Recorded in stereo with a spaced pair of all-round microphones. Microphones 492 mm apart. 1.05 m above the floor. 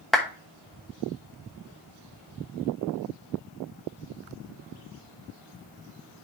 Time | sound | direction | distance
0.1 | a clap | centre (ahead or behind) | 1.1 m